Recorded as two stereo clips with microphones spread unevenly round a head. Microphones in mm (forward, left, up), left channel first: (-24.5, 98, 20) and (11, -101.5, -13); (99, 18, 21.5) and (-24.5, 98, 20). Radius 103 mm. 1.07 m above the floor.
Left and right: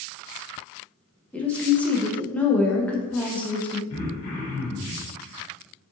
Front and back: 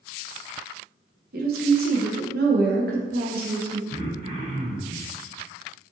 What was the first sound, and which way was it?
A woman speaking, 175° right.